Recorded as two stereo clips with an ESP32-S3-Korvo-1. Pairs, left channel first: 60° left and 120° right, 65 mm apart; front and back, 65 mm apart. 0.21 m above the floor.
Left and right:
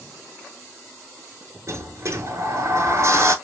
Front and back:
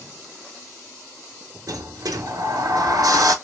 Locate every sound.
1.7 s a sliding door: 165° right, 0.6 m